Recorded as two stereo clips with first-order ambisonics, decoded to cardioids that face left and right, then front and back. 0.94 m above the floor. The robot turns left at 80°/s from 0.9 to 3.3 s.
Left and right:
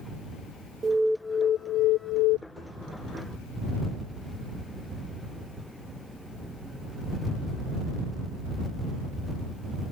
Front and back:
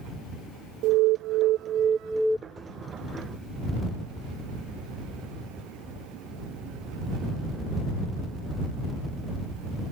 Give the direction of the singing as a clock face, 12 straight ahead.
I don't hear singing.